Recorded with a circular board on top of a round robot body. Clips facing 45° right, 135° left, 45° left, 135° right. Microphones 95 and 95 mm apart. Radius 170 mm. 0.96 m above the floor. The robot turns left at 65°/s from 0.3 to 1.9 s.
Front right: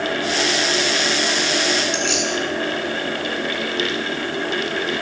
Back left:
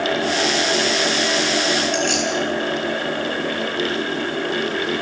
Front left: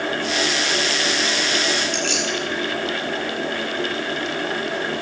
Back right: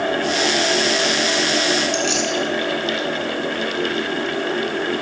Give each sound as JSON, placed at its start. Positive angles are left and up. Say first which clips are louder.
{"t": 1.9, "sound": "keys jangling", "louder": "back left 2 dB, back right 3 dB", "azimuth_deg": 90, "distance_m": 7.5}